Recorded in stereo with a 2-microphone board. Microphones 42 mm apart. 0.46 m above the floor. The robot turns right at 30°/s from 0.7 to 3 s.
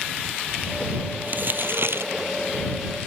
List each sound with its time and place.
1.3 s crumpling: 40° right (ahead or behind); by 2.1 s 65° right (ahead or behind)